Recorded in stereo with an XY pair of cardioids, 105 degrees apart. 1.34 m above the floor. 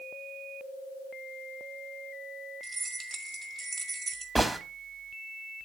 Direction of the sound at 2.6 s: 30° right.